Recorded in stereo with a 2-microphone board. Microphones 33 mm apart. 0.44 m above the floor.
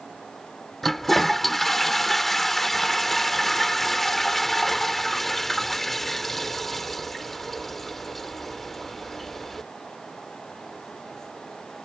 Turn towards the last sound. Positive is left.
turn(degrees=5)  # may be behind; listen again after turning